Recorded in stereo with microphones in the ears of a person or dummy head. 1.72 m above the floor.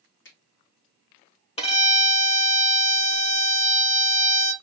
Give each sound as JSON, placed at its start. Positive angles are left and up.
{"t": 0.2, "sound": "a finger snap", "side_deg": 65, "distance_m": 1.9}
{"t": 1.6, "sound": "a violin", "side_deg": 35, "distance_m": 0.8}